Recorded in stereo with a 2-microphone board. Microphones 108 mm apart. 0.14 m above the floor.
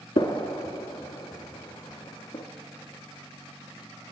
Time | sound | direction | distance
0.2 | a gunshot | 45° left (ahead or behind) | 0.7 m